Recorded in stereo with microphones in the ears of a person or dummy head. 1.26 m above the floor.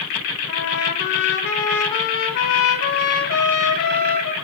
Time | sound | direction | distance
0.5 | a trumpet | 60° left (ahead or behind) | 2.5 m